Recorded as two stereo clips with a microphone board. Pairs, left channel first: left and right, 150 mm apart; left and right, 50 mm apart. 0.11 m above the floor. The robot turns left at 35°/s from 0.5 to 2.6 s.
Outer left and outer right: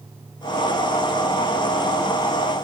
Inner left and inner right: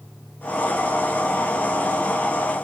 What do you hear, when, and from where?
Only background noise.